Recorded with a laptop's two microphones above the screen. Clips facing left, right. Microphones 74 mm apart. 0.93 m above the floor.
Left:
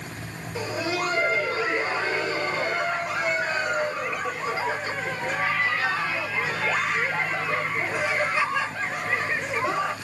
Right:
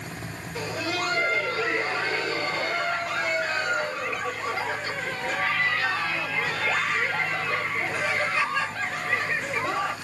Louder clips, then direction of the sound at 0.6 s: Left 2 dB; 10° left (ahead or behind).